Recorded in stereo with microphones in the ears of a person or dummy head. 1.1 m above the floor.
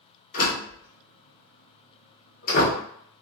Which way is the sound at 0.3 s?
45° left (ahead or behind).